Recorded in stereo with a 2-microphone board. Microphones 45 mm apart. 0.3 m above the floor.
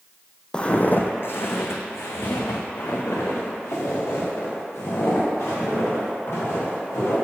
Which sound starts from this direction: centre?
Footsteps, at 0.5 s.